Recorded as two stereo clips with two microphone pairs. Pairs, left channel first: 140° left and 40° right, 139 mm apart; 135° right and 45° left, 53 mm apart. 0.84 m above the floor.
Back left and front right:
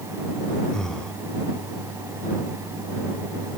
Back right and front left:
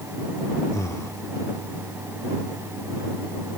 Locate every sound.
0.7 s breathing: 135° right